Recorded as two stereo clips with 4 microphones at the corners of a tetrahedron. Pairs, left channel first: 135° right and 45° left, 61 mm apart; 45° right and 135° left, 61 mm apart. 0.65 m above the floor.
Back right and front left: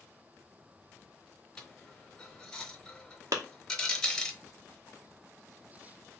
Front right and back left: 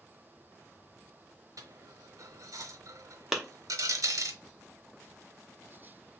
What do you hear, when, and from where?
1.6 s a dropped coin: 145° left, 0.8 m
3.3 s a clap: 50° left, 0.9 m